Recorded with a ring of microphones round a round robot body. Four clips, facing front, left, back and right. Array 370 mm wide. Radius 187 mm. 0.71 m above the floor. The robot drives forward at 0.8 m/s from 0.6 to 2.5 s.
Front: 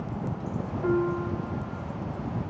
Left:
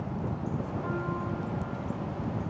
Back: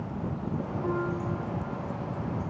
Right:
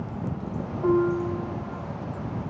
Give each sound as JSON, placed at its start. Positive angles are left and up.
{"t": 0.8, "sound": "a piano", "azimuth_deg": -80, "distance_m": 5.0}